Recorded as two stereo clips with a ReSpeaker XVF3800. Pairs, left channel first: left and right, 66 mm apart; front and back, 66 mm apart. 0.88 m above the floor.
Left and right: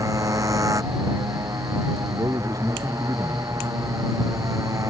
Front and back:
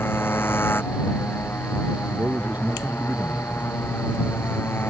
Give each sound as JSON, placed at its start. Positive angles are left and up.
{"t": 0.0, "sound": "a motorcycle", "azimuth_deg": -55}
{"t": 2.1, "sound": "a man speaking", "azimuth_deg": -115}